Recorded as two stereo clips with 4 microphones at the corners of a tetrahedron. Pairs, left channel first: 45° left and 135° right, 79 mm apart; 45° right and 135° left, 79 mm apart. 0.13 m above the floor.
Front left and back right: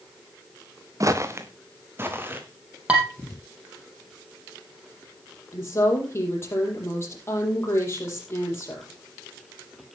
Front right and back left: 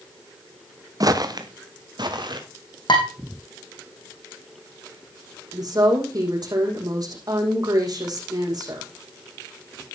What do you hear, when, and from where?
1.0 s footsteps: 175° left, 1.4 m; by 2.4 s 160° left, 3 m
2.9 s dishes clattering: 60° right, 4 m
5.5 s a woman speaking: 105° left, 5.5 m